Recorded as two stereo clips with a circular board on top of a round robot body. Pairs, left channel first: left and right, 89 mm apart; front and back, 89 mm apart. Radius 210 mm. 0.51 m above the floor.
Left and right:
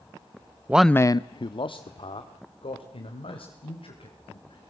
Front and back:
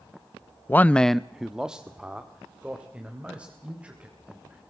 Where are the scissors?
I don't hear scissors.